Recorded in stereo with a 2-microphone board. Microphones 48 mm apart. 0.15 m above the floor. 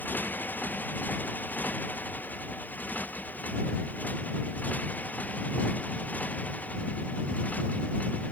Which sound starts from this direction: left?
A motorcycle, at 0.0 s.